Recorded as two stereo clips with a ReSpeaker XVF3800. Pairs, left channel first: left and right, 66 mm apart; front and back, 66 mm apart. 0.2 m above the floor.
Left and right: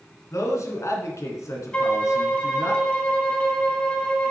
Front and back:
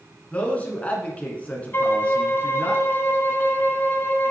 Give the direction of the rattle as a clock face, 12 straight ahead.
No rattle in this recording.